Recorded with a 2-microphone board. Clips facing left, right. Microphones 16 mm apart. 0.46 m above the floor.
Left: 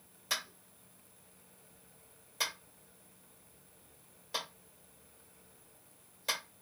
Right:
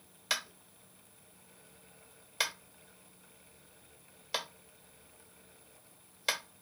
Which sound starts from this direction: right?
Tapping, at 0.3 s.